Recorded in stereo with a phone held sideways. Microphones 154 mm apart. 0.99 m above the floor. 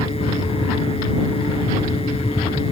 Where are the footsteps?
No footsteps in this recording.